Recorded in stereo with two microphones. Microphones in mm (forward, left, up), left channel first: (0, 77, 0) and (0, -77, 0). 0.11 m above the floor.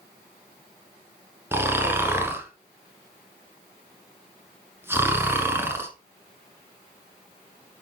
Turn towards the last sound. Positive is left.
turn(degrees=-15)  # may be behind; listen again after turning